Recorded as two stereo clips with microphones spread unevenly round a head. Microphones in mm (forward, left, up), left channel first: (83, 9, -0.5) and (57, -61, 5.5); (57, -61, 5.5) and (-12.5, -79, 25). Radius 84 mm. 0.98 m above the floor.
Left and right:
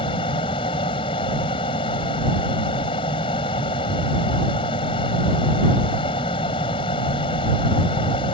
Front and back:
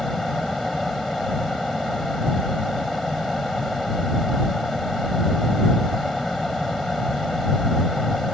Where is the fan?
105° left.